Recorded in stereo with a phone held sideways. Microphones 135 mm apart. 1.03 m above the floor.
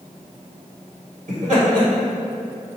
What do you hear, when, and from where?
1.3 s laughter: 60° right (ahead or behind), 1.8 m